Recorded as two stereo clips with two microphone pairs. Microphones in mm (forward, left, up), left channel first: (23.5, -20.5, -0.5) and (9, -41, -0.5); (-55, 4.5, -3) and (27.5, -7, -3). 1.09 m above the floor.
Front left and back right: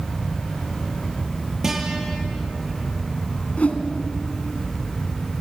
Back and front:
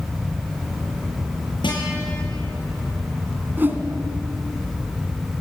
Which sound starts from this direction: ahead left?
A whoosh, at 3.6 s.